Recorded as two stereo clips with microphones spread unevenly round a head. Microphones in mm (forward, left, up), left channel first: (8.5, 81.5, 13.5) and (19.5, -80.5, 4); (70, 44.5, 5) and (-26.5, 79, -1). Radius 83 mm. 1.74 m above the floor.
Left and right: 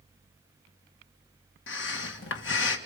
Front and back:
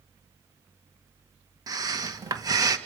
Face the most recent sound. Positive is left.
turn(degrees=110)